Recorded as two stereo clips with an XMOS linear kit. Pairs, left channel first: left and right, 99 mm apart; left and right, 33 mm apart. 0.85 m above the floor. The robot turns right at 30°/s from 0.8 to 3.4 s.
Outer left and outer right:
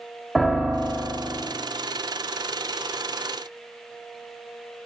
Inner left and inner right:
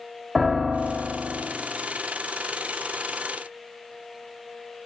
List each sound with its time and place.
0.3 s a piano: centre (ahead or behind), 1.2 m; by 1.5 s 20° right (ahead or behind), 1.2 m